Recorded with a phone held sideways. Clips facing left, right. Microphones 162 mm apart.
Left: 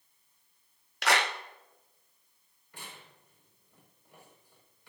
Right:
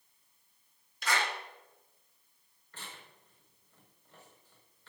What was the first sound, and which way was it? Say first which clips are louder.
A clap: left 5 dB; 75° left (ahead or behind).